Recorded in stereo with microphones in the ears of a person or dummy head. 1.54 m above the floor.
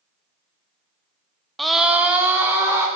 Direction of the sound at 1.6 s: Centre (ahead or behind).